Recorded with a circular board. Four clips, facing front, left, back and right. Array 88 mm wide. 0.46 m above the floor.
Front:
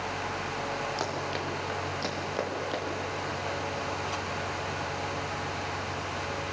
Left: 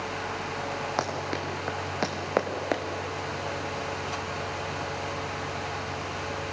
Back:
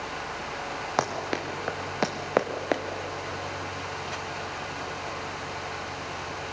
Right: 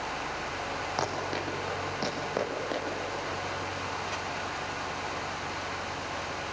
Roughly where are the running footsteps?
Behind.